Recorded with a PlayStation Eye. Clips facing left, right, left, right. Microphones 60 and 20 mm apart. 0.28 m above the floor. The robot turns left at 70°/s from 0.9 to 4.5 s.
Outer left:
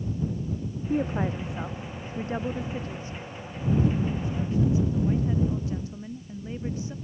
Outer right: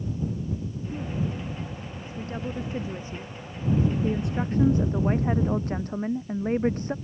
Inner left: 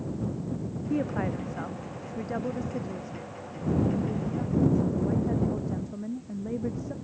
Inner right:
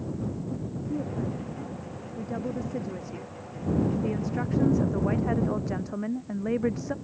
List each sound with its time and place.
0.9 s a woman speaking: 120° left; by 7.0 s 130° right